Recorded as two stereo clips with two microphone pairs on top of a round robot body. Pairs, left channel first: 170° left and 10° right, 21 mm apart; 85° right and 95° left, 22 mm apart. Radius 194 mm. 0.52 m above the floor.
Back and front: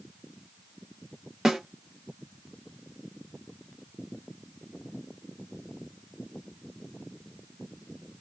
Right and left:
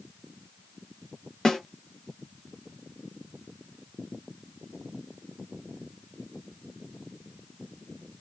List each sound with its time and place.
1.4 s a snare drum: 70° right, 1.5 m